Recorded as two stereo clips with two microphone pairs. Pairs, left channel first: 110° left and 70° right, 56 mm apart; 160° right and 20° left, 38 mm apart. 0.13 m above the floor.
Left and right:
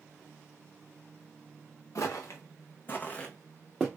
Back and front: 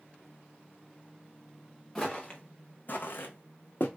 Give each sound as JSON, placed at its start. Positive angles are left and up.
{"t": 1.9, "sound": "footsteps", "azimuth_deg": 120, "distance_m": 0.8}